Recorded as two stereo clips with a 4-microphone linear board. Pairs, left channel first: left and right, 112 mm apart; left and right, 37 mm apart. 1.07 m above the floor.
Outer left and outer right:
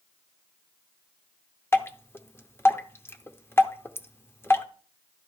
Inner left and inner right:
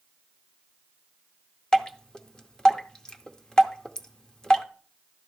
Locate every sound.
1.7 s dripping: 20° left (ahead or behind), 0.7 m